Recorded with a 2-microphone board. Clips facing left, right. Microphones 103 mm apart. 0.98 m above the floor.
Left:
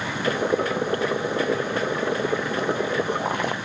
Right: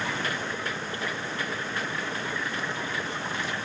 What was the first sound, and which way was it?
Boiling, 55° left (ahead or behind).